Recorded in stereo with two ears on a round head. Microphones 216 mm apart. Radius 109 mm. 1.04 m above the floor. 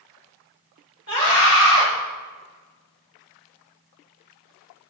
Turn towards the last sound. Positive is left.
turn(degrees=25)  # may be behind; listen again after turning